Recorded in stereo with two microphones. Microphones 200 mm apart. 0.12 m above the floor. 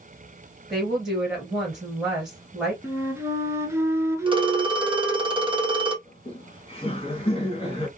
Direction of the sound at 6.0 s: 30° left (ahead or behind).